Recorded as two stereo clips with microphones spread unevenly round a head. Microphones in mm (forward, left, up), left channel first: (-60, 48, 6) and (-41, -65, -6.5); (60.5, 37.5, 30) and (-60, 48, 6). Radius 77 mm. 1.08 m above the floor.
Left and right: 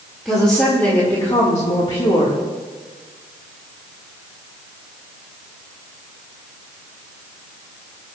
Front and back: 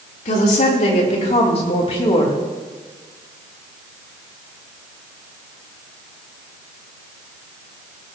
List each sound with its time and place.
0.2 s a woman speaking: 10° left, 3.5 m; by 2.4 s 40° left, 3 m